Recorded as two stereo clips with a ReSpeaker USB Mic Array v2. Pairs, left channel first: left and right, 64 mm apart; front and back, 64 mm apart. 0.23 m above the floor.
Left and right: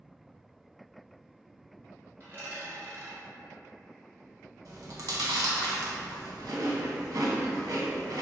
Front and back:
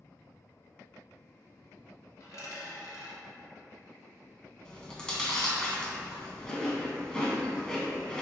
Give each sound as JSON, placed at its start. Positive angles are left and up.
{"t": 2.2, "sound": "a dropped coin", "azimuth_deg": -35, "distance_m": 1.3}
{"t": 4.7, "sound": "chewing", "azimuth_deg": -75, "distance_m": 0.5}